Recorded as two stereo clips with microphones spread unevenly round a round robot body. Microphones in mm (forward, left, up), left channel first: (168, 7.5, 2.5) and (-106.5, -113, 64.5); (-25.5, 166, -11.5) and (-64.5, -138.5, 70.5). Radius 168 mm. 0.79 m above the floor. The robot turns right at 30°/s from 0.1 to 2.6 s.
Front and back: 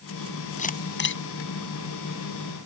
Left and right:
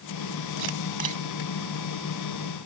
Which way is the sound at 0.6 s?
45° right.